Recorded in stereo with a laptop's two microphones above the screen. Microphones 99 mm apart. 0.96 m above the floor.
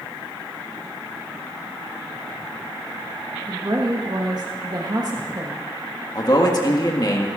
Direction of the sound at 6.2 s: 45° left (ahead or behind).